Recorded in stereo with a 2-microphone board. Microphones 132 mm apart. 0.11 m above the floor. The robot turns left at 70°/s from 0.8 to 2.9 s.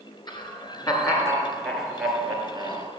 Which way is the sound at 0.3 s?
70° left.